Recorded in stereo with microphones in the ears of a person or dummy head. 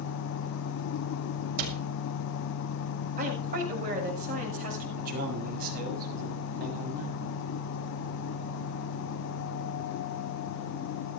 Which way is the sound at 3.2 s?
50° right (ahead or behind).